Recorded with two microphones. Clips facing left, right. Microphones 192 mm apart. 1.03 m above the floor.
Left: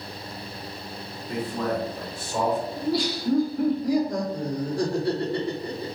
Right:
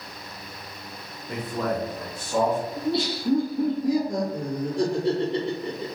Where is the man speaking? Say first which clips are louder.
Even; 25° right (ahead or behind), 1.9 m; by 2.6 s 45° right (ahead or behind), 0.8 m.